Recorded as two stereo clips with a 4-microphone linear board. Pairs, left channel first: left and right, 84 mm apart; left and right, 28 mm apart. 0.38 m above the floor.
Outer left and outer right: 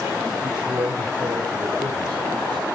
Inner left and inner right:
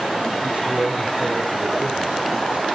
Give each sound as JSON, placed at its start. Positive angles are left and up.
{"t": 0.4, "sound": "a man speaking", "side_deg": -55, "distance_m": 2.0}